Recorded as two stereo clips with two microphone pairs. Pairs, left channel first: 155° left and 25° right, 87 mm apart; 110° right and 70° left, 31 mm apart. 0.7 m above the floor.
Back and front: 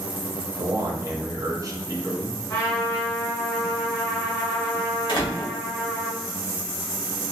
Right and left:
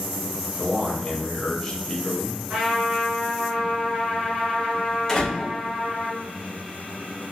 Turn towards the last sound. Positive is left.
turn(degrees=175)